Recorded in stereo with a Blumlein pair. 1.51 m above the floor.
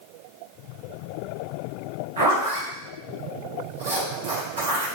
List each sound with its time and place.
2.2 s a zipper: 60° right, 1.6 m